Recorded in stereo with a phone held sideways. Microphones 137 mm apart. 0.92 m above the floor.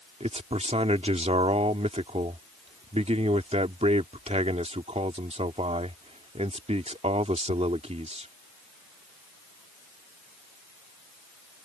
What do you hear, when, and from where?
0.2 s a man speaking: 55° right (ahead or behind)